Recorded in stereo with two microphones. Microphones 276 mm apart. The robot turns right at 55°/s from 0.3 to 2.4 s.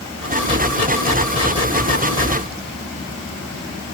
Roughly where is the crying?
No crying in this recording.